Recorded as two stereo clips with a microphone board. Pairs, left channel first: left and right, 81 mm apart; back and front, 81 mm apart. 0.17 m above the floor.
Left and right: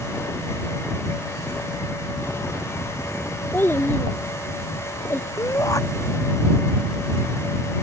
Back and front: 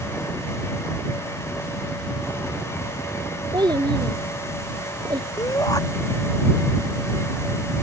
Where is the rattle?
No rattle in this recording.